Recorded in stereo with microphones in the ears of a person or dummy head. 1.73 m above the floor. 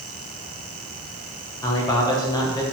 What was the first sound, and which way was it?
A man speaking, 15° left (ahead or behind).